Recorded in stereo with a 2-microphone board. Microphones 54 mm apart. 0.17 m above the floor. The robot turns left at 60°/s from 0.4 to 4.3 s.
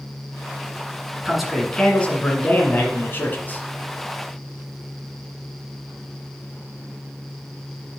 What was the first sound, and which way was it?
A man speaking, 165° right.